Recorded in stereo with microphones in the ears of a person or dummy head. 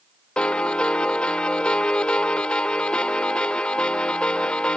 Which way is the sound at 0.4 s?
5° left (ahead or behind).